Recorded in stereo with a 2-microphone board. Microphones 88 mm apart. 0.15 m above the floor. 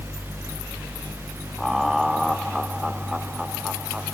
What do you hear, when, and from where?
1.6 s laughter: centre (ahead or behind); by 4.1 s 10° right (ahead or behind)